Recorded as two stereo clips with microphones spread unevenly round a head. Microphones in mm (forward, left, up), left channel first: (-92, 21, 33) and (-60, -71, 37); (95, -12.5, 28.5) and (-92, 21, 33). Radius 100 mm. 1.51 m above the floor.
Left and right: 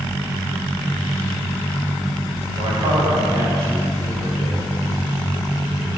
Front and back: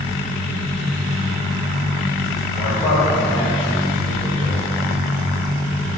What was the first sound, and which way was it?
A man speaking, 65° right.